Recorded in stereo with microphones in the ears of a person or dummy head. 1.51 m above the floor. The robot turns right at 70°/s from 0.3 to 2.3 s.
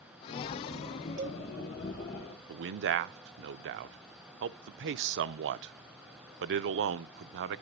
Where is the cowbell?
60° right (ahead or behind), 1.0 m; by 1.4 s 65° right (ahead or behind), 1.0 m.